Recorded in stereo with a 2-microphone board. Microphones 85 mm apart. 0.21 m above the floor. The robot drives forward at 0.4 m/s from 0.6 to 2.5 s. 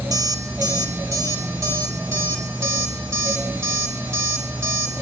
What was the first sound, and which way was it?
An alarm clock, 45° right (ahead or behind).